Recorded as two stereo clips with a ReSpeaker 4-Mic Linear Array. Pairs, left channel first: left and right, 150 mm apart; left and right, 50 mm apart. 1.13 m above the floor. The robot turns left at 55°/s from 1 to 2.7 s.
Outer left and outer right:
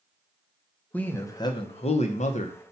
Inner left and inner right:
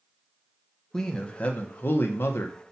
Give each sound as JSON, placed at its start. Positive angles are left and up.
{"t": 0.9, "sound": "a man speaking", "azimuth_deg": 165, "distance_m": 0.7}